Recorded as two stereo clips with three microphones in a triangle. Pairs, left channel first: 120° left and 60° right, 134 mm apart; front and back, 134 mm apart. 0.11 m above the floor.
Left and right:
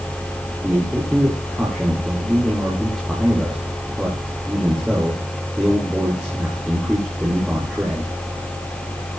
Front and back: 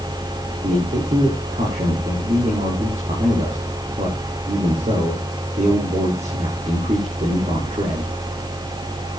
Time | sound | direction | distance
0.6 | a man speaking | 145° right | 6 m